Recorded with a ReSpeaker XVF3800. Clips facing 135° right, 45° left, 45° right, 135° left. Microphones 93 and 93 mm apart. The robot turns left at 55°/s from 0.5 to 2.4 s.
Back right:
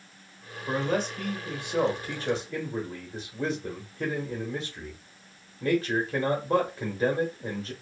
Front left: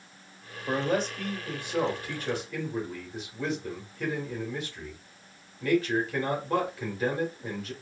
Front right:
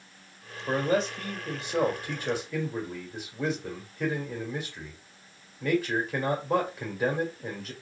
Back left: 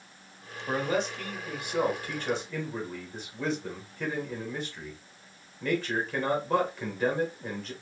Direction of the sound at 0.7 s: 30° right.